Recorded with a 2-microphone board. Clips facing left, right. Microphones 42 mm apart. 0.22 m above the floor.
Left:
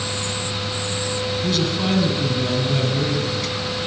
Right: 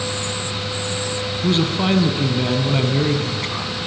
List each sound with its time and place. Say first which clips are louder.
1.4 s a man speaking: right 5 dB; 30° right (ahead or behind), 2 m